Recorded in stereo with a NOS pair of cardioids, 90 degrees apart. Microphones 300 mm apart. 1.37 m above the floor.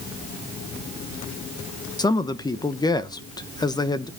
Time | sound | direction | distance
2.0 | a man speaking | 15° left | 1.0 m